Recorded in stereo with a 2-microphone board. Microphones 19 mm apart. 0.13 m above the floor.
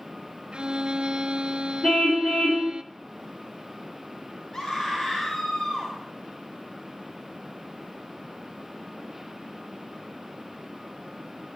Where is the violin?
55° right (ahead or behind), 1.2 m.